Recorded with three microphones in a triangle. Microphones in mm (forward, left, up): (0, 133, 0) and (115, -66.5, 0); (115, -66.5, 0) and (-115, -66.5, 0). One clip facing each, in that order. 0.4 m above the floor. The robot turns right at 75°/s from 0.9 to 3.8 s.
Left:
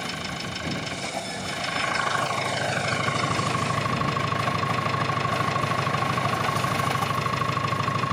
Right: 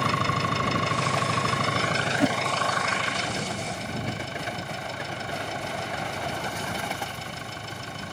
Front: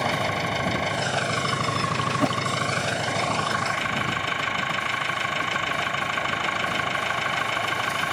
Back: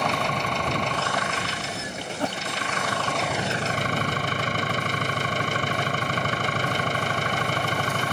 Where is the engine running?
85° right; by 8.1 s 135° left.